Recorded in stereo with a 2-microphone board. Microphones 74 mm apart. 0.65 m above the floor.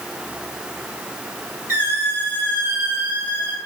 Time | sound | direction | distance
1.7 | a squeak | 35° right (ahead or behind) | 1.3 m